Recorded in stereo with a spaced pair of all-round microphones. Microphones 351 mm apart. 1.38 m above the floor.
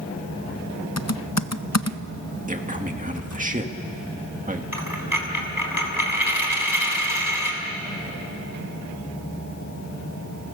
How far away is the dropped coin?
About 3.5 m.